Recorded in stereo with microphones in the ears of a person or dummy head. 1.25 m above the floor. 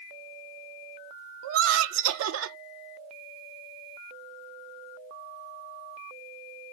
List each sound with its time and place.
1.4 s laughter: 70° right (ahead or behind), 0.7 m